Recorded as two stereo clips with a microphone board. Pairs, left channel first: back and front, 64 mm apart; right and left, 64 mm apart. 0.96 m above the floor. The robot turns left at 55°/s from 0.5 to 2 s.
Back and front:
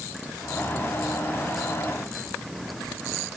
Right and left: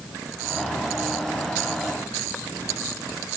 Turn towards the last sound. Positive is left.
No sound to turn to.